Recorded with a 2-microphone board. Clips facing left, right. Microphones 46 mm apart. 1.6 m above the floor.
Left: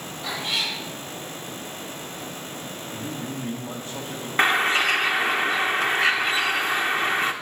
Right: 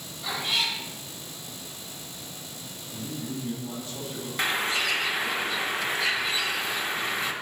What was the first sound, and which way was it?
A cat meowing, centre (ahead or behind).